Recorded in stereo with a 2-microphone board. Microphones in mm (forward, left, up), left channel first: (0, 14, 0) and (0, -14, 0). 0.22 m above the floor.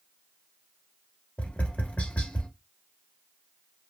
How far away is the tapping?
About 1.0 m.